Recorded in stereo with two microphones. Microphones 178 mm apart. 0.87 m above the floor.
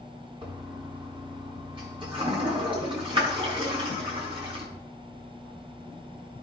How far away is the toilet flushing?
About 4 m.